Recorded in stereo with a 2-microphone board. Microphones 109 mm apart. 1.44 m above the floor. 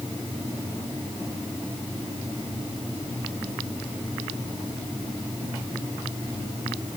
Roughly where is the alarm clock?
No alarm clock in this recording.